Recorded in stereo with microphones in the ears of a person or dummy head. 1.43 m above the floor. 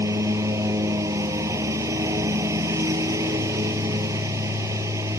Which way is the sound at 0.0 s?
15° right (ahead or behind).